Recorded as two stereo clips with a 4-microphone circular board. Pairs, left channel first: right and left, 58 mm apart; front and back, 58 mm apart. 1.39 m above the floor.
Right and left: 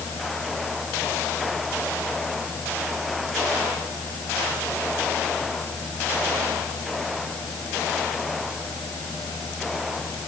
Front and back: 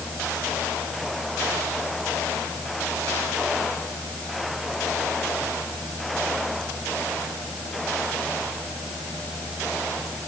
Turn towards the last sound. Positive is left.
No sound to turn to.